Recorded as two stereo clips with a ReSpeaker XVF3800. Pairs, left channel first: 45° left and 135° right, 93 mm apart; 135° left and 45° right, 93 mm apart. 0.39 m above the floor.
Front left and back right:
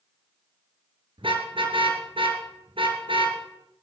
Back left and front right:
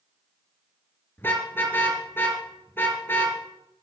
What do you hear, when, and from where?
1.2 s a car horn: 160° right, 3.5 m